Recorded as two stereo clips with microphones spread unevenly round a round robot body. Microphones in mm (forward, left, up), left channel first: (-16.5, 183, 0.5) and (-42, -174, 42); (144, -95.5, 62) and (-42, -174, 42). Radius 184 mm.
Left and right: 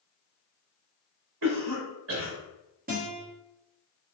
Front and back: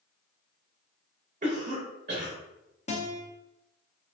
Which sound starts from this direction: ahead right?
A guitar, at 2.9 s.